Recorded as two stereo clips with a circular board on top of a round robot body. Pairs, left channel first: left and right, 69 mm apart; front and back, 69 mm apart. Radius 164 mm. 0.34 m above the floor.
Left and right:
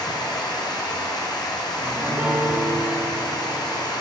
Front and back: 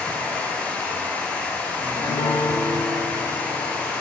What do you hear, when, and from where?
0.0 s running water: 70° left, 1.2 m
1.8 s a piano: 20° right, 0.8 m